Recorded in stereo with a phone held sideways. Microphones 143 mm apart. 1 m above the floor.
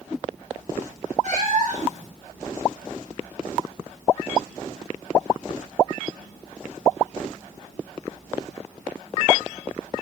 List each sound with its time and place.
1.2 s a cat meowing: 60° right (ahead or behind), 1.0 m